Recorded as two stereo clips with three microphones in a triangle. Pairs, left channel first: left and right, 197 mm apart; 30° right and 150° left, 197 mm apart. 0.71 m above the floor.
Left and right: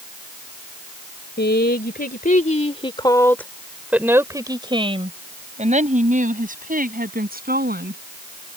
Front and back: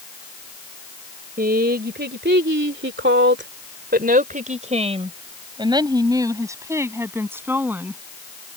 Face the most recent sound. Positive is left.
turn(degrees=-130)